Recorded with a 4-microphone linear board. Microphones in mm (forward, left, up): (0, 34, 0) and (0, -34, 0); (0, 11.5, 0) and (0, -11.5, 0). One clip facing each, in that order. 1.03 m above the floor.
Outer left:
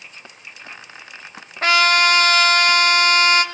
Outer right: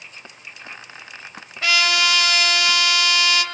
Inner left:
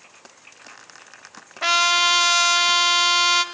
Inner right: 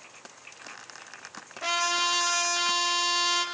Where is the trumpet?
45° left (ahead or behind), 1.6 m.